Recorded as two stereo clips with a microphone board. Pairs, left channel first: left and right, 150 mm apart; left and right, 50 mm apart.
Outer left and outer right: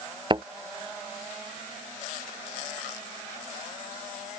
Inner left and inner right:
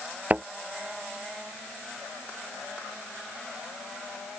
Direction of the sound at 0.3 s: 35° right (ahead or behind).